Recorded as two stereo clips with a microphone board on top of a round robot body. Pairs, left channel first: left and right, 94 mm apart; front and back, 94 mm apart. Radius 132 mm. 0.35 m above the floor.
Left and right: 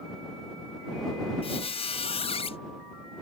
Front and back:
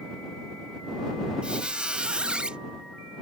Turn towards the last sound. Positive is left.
turn(degrees=100)